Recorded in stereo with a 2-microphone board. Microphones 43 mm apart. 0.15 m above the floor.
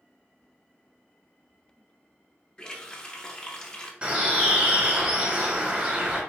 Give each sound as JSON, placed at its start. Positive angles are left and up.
{"t": 2.6, "sound": "a running tap", "side_deg": 20, "distance_m": 0.8}
{"t": 4.0, "sound": "a bird", "side_deg": -30, "distance_m": 1.6}